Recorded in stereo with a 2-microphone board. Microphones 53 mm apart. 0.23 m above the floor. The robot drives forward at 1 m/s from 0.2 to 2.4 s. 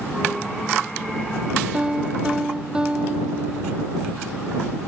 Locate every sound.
1.7 s a piano: 15° right (ahead or behind)